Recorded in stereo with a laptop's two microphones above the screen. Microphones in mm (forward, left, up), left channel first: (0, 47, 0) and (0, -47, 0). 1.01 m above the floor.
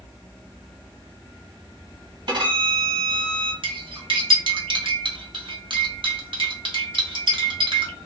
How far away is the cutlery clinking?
About 0.8 m.